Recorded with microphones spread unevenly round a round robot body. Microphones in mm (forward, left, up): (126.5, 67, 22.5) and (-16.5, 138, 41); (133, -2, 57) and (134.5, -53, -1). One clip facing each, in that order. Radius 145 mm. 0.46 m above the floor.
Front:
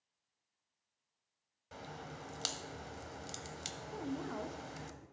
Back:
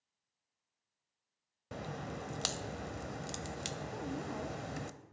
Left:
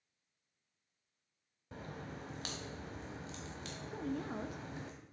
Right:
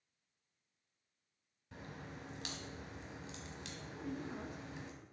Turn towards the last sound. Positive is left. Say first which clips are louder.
# front 2 dB, left 5 dB
turn(degrees=65)